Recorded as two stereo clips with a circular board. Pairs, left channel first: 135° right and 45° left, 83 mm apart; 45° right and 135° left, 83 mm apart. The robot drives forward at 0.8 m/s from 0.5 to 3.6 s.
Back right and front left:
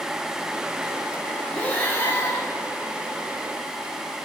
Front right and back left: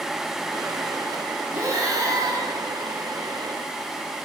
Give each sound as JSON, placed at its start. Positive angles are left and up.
{"t": 1.5, "sound": "breathing", "azimuth_deg": 155, "distance_m": 1.2}